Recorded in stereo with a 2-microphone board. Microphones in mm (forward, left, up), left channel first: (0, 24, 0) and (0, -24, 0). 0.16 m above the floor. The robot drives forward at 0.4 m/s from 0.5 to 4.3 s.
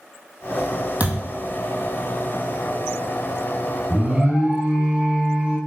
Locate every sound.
1.0 s a thud: 35° right (ahead or behind), 1.8 m; by 1.3 s 30° right (ahead or behind), 1.9 m
3.9 s an alarm: 25° right (ahead or behind), 1.9 m